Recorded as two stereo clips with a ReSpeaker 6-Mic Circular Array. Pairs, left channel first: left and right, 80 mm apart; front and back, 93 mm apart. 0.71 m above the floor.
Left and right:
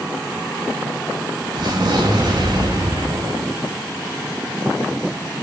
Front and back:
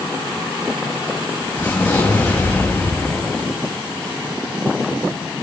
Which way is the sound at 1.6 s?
70° right.